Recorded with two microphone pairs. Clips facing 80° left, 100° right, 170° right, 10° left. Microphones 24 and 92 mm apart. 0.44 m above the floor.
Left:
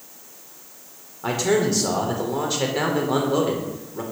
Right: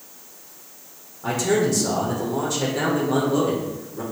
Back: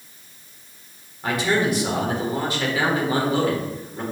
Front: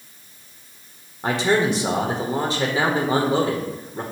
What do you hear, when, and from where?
1.2 s a man speaking: 40° left, 1.4 m